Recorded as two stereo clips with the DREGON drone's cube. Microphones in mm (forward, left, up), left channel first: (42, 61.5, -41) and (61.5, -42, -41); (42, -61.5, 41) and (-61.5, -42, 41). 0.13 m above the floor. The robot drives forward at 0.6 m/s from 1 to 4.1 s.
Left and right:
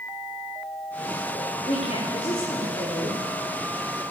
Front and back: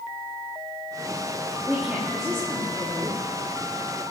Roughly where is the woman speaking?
Left.